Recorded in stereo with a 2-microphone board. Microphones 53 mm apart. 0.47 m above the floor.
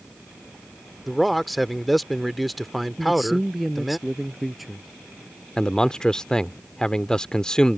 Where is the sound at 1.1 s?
Centre (ahead or behind).